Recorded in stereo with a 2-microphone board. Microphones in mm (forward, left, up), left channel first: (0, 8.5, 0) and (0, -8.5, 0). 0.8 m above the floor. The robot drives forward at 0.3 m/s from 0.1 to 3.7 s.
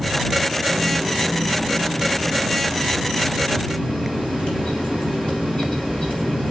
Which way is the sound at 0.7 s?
80° left.